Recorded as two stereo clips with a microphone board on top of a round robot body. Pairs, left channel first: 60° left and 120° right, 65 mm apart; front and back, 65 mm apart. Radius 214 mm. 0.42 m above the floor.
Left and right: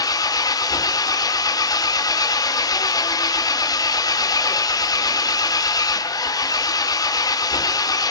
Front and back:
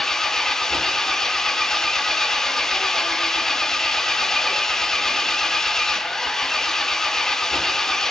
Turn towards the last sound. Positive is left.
turn(degrees=85)